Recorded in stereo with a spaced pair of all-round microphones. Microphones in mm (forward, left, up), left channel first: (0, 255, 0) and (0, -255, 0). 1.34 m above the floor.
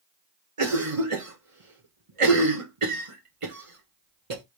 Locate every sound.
0.6 s a cough: 80° right, 1.4 m